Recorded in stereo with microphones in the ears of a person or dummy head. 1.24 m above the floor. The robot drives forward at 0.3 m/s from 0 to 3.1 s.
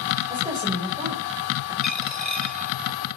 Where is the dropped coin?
5° right (ahead or behind), 1.7 m.